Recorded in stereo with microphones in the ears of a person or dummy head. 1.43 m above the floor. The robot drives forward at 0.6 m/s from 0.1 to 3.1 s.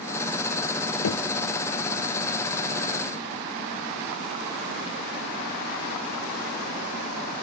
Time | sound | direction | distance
1.0 | knocking | 70° left (ahead or behind) | 0.7 m